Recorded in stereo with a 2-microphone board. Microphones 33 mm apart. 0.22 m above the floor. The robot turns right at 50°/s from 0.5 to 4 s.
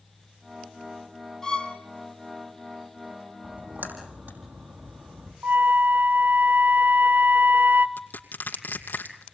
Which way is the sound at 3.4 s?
65° right (ahead or behind).